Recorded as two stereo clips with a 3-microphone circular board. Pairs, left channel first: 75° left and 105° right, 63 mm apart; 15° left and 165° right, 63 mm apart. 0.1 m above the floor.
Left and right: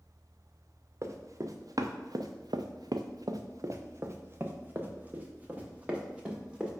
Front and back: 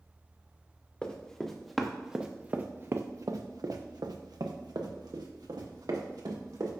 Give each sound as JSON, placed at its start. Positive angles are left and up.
{"t": 1.0, "sound": "running footsteps", "azimuth_deg": -60, "distance_m": 1.2}